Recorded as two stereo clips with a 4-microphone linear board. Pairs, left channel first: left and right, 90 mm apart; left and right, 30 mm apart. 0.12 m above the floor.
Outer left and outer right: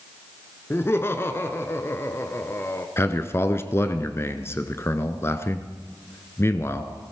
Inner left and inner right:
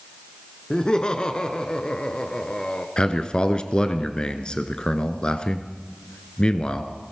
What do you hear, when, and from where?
0.7 s laughter: 30° left (ahead or behind), 1.2 m
3.0 s a man speaking: 30° left (ahead or behind), 1.2 m